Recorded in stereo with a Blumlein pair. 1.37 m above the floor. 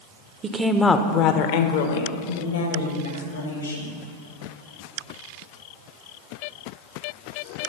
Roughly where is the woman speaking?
Ahead right.